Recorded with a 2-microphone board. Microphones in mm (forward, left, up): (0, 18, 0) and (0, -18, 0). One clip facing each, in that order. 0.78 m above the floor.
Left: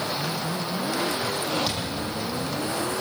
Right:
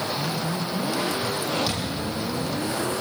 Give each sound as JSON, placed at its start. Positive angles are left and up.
{"t": 1.7, "sound": "a thud", "side_deg": 5, "distance_m": 8.5}